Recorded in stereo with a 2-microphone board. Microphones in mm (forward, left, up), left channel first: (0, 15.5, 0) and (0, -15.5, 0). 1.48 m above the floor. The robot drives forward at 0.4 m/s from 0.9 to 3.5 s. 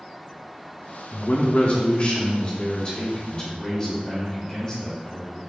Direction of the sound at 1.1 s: 60° left (ahead or behind).